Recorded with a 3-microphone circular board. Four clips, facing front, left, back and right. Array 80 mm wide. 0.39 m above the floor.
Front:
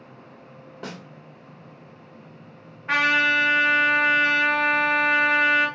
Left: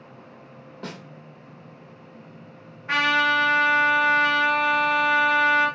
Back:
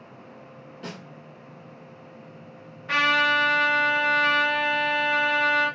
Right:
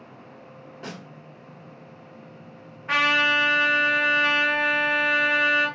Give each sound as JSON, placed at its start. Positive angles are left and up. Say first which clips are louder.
{"t": 0.8, "sound": "a snare drum", "louder": "left 1 dB, front 2 dB", "azimuth_deg": 20, "distance_m": 0.9}
{"t": 2.9, "sound": "a trumpet", "louder": "left 1 dB, front 1 dB", "azimuth_deg": -5, "distance_m": 1.7}